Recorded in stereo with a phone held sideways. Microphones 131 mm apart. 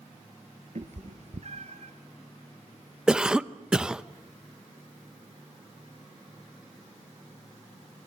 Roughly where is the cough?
Centre.